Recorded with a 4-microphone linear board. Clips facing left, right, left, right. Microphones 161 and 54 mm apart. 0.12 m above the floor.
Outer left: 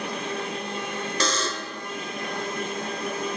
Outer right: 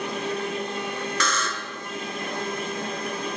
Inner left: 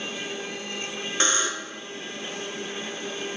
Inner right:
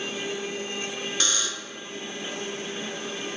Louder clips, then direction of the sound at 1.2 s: Outer left 1 dB, inner left 8 dB; 30° left (ahead or behind).